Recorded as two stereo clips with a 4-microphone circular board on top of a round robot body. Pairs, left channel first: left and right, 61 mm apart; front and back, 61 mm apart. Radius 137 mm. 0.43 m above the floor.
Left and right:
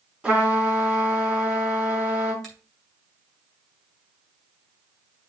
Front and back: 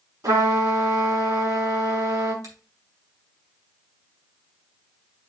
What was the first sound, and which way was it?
A trumpet, 170° right.